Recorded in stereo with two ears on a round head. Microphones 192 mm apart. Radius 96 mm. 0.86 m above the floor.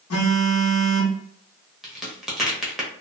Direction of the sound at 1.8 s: Centre (ahead or behind).